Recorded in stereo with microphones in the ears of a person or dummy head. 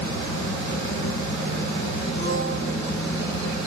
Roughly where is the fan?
Left.